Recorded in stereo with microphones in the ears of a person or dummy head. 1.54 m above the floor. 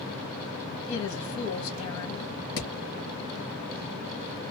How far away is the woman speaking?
About 1.8 m.